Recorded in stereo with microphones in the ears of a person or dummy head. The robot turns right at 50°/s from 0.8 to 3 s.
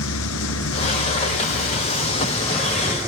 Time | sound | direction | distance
0.0 | a vehicle | 80° left | ?